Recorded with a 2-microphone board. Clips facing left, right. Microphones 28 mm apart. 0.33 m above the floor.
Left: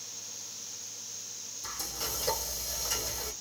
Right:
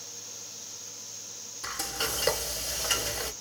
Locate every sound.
1.6 s frying: 75° right (ahead or behind), 1.1 m